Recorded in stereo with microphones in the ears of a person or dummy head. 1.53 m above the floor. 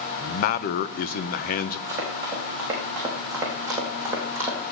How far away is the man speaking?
About 0.9 m.